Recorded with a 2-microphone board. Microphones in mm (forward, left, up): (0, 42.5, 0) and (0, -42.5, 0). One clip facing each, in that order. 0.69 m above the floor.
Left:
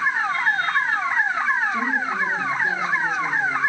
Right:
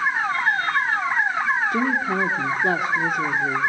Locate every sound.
1.7 s a woman speaking: 60° right (ahead or behind), 1.7 m